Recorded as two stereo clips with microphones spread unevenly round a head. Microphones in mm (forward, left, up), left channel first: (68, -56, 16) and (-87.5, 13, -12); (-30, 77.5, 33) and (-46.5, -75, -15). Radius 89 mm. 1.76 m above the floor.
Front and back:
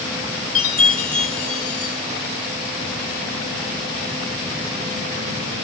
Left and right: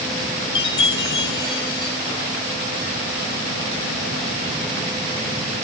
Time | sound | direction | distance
0.6 | a chime | 25° left | 1.3 m